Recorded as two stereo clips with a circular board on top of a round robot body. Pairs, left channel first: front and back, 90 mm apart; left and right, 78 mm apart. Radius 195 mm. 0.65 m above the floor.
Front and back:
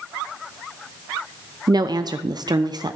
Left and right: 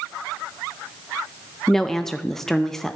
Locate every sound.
1.7 s a woman speaking: 175° left, 0.7 m